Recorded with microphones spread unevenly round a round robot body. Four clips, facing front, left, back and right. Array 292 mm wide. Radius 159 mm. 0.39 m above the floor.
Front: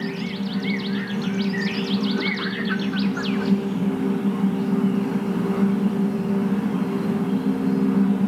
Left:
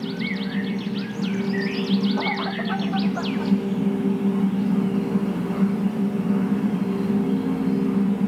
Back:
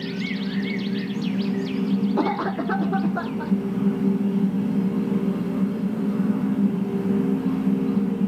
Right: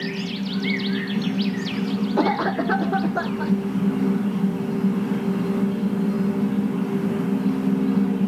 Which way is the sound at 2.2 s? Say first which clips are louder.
Right 5 dB, back 3 dB; 125° right.